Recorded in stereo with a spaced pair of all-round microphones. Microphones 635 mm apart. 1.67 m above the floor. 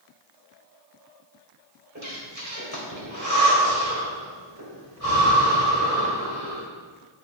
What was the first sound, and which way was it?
Breathing, 25° right (ahead or behind).